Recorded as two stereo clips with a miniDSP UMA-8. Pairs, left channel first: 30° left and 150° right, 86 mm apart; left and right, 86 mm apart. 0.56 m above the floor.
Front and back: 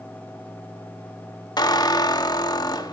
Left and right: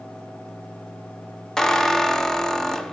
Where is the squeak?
5° left, 0.7 m.